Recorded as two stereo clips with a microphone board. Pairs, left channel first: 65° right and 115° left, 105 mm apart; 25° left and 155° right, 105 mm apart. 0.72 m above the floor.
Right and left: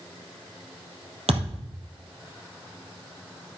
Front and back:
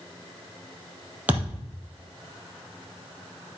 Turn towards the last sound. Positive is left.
turn(degrees=125)